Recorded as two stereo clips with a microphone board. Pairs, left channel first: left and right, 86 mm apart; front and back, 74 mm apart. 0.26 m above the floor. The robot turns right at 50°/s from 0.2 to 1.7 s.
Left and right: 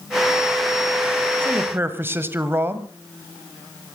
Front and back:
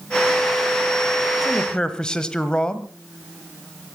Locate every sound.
1.4 s a man speaking: 80° right, 1.4 m; by 2.9 s 70° right, 1.4 m